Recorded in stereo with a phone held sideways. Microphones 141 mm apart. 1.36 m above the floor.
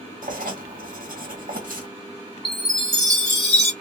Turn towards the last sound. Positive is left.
turn(degrees=5)  # may be behind; listen again after turning